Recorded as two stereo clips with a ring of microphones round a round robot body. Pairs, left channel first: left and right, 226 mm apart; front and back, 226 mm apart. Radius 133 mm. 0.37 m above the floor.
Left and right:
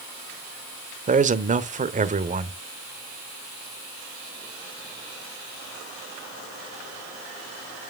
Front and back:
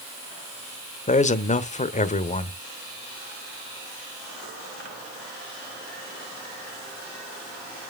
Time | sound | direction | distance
1.1 | a man speaking | 45° right | 1.2 m